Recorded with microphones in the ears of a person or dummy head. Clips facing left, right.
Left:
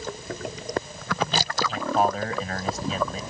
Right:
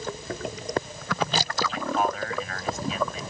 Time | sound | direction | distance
1.7 | a man speaking | 30° left (ahead or behind) | ?